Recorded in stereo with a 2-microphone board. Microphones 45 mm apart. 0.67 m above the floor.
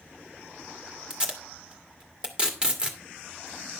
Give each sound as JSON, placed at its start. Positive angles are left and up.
{"t": 1.1, "sound": "tape being pulled", "side_deg": -25, "distance_m": 1.8}